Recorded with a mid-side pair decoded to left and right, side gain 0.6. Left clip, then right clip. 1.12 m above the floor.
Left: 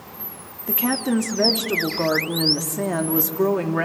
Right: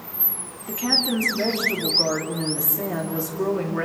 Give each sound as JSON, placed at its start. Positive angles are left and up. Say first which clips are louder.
{"t": 0.7, "sound": "a woman speaking", "louder": "right 2 dB", "azimuth_deg": 30, "distance_m": 2.5}